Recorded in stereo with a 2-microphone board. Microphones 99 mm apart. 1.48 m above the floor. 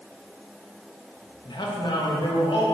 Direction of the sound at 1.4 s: 45° left (ahead or behind).